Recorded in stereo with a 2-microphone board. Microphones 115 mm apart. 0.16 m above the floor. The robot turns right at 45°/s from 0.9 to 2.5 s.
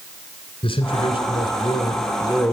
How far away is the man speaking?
About 1.8 m.